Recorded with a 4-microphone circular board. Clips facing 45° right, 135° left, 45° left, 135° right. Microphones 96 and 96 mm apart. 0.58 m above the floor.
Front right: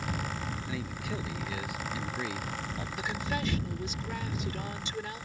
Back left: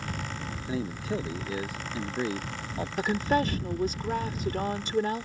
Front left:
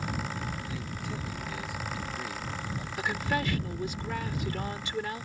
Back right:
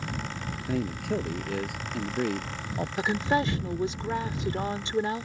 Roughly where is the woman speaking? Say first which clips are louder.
Back left 9 dB, back right 5 dB; behind.